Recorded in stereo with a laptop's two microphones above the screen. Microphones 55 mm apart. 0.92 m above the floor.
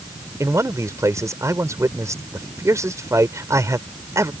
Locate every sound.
0.4 s a man speaking: 70° right (ahead or behind)